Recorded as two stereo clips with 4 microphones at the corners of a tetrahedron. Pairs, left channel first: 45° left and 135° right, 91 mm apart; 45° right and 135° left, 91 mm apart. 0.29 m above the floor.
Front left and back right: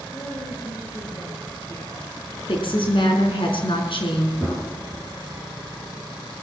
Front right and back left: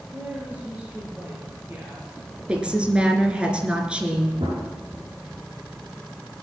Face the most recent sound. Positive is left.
turn(degrees=110)